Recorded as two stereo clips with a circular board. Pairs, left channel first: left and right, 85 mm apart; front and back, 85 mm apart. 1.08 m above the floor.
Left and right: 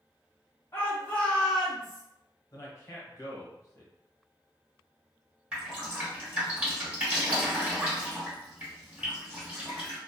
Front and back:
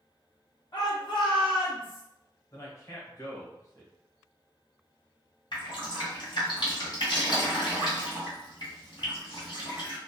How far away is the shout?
About 0.7 m.